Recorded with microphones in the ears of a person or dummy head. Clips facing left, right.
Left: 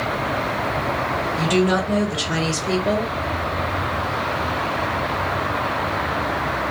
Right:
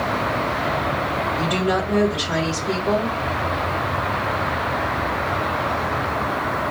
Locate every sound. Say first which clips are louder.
1.4 s a woman speaking: left 4 dB; 60° left (ahead or behind), 1.3 m